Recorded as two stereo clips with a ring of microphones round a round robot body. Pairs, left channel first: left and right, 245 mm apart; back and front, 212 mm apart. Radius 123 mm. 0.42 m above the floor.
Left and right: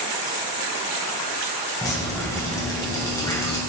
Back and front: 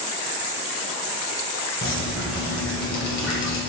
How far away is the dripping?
About 2 m.